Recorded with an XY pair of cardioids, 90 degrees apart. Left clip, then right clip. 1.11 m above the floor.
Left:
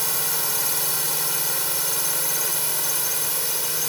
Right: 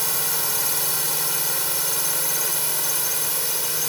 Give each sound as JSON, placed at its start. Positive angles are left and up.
{"t": 0.0, "sound": "a drone", "azimuth_deg": -5}